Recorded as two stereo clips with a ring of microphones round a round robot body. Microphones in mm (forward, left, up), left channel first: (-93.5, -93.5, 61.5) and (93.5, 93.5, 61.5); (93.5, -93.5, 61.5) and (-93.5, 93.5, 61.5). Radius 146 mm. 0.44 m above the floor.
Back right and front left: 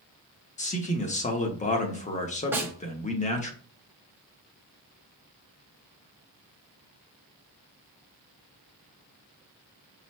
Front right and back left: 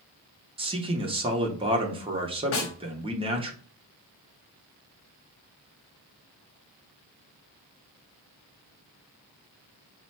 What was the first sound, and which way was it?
A man speaking, 175° right.